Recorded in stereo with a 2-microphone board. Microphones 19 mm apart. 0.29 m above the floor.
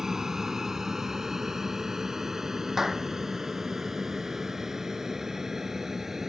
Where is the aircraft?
25° right (ahead or behind); by 6.3 s 20° right (ahead or behind).